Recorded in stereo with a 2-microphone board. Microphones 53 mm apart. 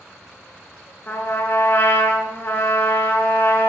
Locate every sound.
1.1 s a trumpet: 45° left (ahead or behind), 1.4 m